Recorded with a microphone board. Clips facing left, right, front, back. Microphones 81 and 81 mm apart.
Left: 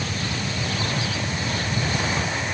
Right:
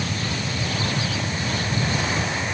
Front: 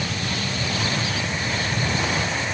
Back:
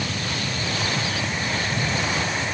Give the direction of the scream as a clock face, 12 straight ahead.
No scream in this recording.